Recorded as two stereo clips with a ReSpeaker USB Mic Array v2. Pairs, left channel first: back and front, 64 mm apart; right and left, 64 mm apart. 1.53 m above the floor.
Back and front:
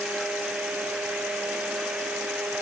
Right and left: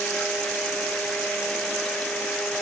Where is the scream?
No scream in this recording.